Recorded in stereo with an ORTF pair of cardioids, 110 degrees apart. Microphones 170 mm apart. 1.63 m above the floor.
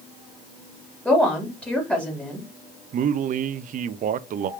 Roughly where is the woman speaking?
Ahead.